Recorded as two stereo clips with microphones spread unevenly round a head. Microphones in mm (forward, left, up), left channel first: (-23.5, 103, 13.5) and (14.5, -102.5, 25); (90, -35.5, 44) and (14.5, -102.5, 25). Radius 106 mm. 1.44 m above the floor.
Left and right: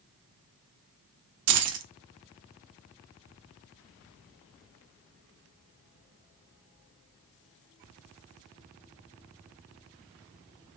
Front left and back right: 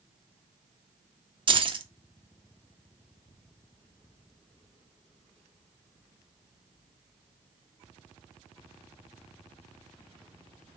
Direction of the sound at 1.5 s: 95° right.